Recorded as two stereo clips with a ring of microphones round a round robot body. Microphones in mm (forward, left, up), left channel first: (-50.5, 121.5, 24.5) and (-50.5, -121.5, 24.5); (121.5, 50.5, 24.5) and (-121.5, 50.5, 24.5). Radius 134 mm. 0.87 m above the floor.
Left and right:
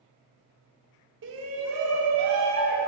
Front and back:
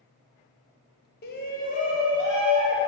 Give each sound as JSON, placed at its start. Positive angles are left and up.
{"t": 1.2, "sound": "a shout", "azimuth_deg": -50, "distance_m": 0.7}